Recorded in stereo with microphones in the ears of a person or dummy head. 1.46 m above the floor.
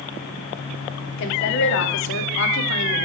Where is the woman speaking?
60° left (ahead or behind), 0.7 m.